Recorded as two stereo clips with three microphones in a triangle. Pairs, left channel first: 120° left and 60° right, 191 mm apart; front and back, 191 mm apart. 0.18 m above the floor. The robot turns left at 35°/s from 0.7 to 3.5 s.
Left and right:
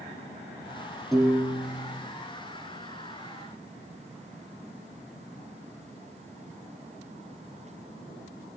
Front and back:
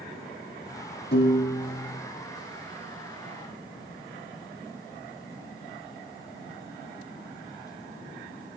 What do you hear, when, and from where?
1.1 s a piano: 30° left, 6 m; by 2.0 s straight ahead, 6 m